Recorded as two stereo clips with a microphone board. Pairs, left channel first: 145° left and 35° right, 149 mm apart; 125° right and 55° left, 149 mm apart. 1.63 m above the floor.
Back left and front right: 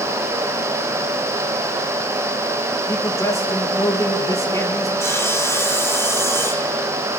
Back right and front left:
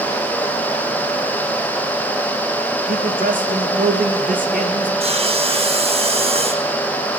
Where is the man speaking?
75° left, 1.7 m.